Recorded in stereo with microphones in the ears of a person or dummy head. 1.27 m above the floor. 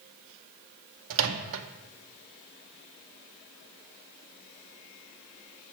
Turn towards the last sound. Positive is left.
turn(degrees=-70)  # may be behind; listen again after turning